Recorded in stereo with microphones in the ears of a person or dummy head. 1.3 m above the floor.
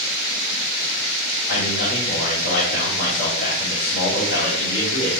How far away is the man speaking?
About 4.5 m.